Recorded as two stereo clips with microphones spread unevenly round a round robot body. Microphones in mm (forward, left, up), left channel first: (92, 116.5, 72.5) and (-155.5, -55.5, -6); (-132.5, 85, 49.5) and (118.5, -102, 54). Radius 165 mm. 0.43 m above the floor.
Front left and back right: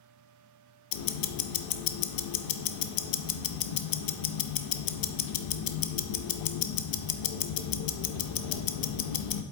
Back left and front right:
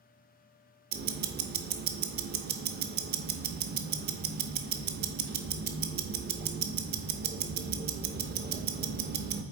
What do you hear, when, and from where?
0.9 s ticking: 20° left, 0.6 m